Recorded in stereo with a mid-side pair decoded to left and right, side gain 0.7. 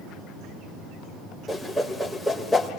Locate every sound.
1.5 s a whoosh: straight ahead, 3 m